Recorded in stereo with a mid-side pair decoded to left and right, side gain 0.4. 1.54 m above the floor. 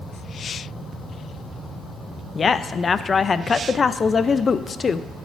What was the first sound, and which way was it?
A woman speaking, 40° left.